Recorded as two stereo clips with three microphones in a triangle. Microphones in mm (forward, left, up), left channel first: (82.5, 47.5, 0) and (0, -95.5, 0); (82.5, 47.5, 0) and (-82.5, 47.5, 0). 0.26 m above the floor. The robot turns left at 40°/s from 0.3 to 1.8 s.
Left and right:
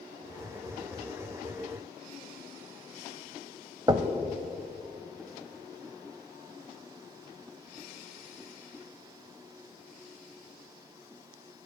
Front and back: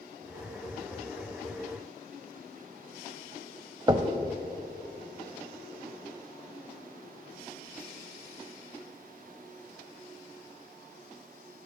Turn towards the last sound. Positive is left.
turn(degrees=-150)